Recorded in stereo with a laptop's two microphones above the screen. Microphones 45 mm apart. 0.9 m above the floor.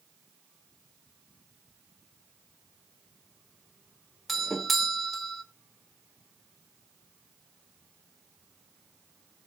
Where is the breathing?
I don't hear breathing.